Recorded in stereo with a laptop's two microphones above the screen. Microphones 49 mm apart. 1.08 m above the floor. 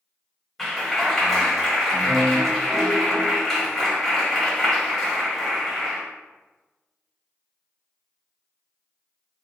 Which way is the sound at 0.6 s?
5° left (ahead or behind).